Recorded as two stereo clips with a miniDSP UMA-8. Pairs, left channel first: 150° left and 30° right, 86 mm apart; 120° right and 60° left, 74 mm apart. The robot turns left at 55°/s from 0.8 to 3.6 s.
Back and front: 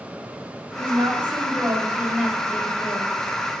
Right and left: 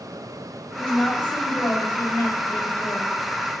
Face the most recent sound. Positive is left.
turn(degrees=165)